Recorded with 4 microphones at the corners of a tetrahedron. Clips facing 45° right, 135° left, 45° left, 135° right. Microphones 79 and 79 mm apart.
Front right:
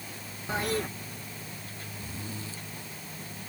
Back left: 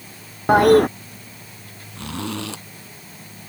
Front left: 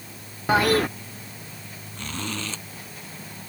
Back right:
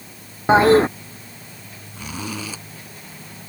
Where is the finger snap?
I don't hear a finger snap.